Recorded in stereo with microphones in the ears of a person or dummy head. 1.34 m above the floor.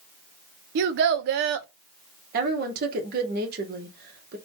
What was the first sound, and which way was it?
A child speaking, 55° right (ahead or behind).